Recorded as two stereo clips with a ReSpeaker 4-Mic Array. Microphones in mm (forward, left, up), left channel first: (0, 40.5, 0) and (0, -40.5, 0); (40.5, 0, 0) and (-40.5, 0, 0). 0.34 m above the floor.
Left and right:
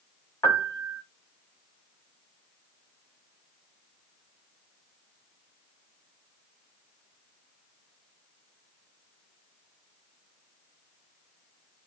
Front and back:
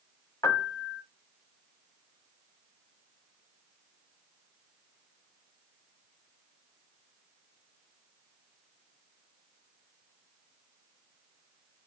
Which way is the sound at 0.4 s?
35° left.